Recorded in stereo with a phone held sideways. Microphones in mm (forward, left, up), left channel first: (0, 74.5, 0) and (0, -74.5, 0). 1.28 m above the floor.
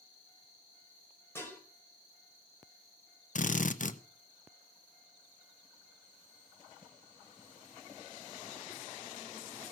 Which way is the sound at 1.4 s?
15° left (ahead or behind).